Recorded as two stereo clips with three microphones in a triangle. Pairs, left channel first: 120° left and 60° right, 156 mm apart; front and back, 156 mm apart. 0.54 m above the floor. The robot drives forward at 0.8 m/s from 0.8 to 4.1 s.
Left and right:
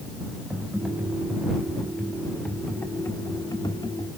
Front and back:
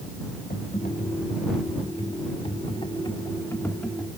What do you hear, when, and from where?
0.5 s typing on a keyboard: 25° left, 3 m; by 4.1 s 85° left, 1.7 m